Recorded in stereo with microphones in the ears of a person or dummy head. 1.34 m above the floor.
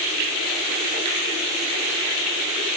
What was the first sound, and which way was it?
Only background noise.